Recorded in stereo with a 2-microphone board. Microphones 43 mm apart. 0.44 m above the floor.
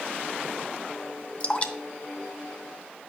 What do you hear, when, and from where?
1.4 s dripping: 35° left (ahead or behind), 0.7 m